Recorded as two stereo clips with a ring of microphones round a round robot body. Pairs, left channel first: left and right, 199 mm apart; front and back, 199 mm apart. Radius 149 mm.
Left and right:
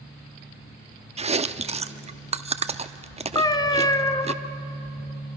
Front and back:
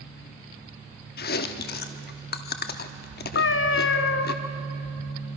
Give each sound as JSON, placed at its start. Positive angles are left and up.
{"t": 1.2, "sound": "chewing", "azimuth_deg": -35, "distance_m": 0.8}
{"t": 3.4, "sound": "a cat meowing", "azimuth_deg": 20, "distance_m": 1.0}